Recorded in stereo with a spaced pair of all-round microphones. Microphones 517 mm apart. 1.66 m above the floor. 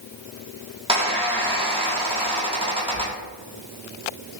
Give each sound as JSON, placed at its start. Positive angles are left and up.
{"t": 0.9, "sound": "a squeak", "side_deg": -10, "distance_m": 1.0}